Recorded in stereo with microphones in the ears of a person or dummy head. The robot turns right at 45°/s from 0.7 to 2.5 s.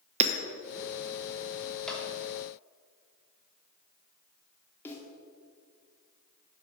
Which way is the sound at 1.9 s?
5° left (ahead or behind).